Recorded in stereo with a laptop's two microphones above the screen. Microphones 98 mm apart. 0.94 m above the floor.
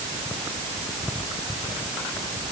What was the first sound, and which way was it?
Only background noise.